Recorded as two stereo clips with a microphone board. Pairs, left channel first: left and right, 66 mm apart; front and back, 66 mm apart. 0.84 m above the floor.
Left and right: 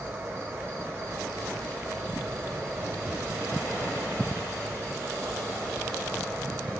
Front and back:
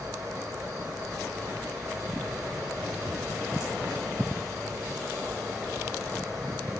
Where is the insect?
145° right, 2.5 m.